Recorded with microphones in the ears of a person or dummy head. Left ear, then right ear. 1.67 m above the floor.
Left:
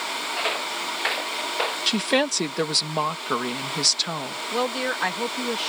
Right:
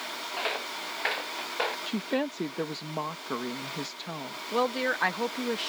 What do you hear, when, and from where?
0.4 s footsteps: 15° left (ahead or behind); by 1.8 s 5° left (ahead or behind)
1.9 s a woman speaking: 75° left (ahead or behind)
4.5 s a woman speaking: centre (ahead or behind)